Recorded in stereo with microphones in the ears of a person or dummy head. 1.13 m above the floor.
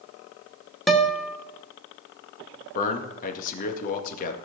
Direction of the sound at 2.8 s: 50° left (ahead or behind).